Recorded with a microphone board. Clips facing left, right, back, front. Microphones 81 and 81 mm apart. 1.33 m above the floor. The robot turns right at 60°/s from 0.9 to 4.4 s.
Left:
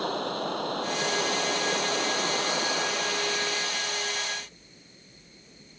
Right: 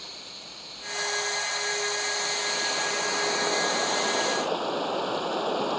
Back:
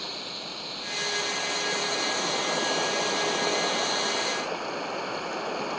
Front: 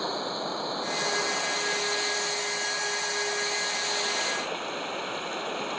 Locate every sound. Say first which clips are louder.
0.0 s running water: left 17 dB, front 8 dB; 55° left; by 5.8 s 95° right